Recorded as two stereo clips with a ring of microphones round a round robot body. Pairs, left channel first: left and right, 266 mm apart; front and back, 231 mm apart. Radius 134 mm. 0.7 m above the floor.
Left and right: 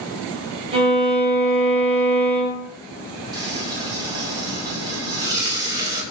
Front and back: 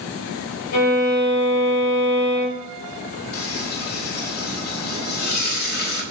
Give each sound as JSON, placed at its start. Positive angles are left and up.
{"t": 0.7, "sound": "a violin", "azimuth_deg": -20, "distance_m": 4.0}
{"t": 3.3, "sound": "frying", "azimuth_deg": -15, "distance_m": 2.0}